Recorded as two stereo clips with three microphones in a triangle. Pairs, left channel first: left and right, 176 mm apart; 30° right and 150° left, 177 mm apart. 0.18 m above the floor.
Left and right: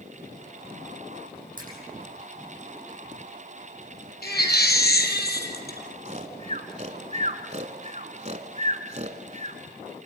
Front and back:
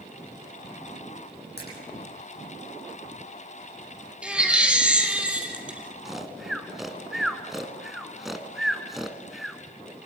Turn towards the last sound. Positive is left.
turn(degrees=-120)